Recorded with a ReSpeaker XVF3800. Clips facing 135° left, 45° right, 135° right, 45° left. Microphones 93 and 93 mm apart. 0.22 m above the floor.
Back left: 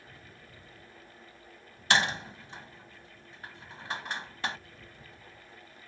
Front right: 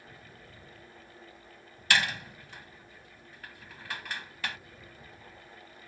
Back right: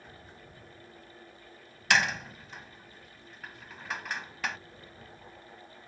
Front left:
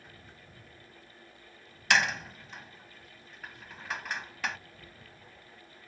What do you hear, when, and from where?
1.9 s a door slam: 135° left